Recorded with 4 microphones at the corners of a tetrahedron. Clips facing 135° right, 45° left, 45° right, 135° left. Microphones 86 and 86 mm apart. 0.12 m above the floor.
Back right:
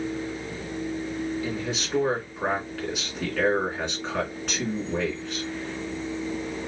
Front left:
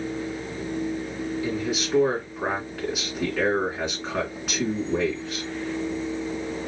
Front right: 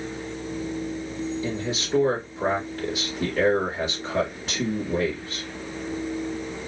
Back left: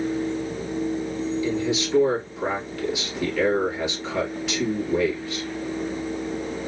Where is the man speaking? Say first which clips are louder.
Front left 3 dB, back left 5 dB; 35° right, 2 m.